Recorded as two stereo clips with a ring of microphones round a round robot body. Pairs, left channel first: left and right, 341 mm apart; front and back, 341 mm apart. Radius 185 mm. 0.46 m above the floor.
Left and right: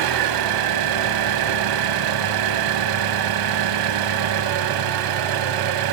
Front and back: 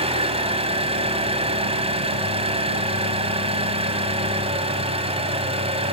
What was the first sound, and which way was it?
An engine running, 105° right.